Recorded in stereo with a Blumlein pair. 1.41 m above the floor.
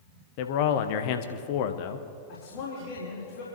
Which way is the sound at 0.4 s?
45° left.